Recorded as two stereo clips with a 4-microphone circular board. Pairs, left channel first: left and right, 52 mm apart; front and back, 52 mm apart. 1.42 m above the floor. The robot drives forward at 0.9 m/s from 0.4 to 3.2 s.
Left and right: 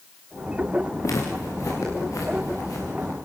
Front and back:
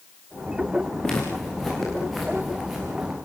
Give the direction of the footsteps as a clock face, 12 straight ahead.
9 o'clock.